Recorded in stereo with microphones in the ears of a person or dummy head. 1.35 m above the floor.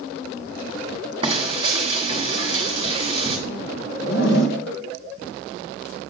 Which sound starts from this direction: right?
Frying, at 1.2 s.